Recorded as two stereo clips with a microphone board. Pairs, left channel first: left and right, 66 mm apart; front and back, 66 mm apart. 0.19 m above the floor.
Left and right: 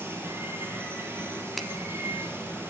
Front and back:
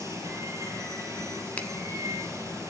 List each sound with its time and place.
0.0 s running water: 140° right, 4.5 m
1.6 s a finger snap: 5° left, 0.8 m